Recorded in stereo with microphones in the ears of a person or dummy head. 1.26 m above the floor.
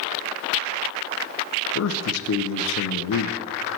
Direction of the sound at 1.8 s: 85° left.